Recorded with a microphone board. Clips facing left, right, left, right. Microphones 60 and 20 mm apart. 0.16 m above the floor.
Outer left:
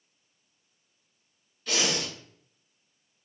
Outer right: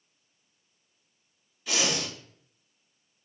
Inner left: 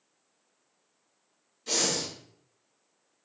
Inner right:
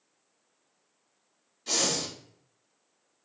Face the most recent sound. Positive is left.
turn(degrees=-10)  # may be behind; listen again after turning